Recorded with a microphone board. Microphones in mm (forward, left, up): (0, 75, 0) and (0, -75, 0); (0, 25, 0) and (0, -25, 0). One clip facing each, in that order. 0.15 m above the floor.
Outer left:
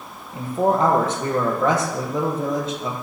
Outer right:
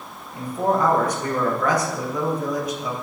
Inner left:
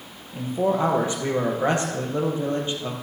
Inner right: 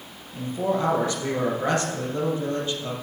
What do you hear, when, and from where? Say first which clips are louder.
0.3 s a man speaking: outer left 2 dB, inner left 2 dB; 25° left (ahead or behind), 4.5 m